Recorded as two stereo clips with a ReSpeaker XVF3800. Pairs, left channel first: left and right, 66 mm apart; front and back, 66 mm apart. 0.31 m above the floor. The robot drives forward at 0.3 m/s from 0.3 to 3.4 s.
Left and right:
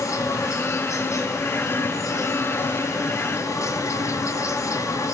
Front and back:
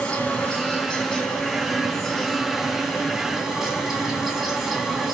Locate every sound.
0.0 s an insect: 70° left, 2.5 m; by 5.1 s 95° left, 2.5 m